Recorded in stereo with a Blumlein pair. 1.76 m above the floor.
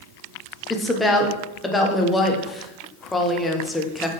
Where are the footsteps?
No footsteps in this recording.